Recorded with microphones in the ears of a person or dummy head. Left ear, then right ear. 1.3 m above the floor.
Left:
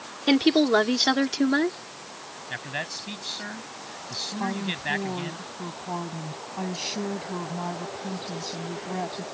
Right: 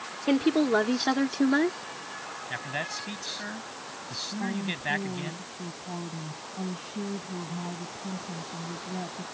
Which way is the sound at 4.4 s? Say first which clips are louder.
Left 3 dB; 45° left (ahead or behind).